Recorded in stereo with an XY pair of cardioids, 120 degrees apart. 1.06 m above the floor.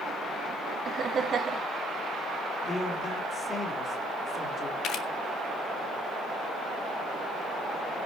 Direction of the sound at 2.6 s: 25° left.